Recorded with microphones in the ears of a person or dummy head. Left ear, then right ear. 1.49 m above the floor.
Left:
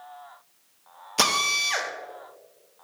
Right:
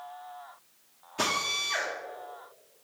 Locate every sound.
1.2 s a drill: 85° left, 1.2 m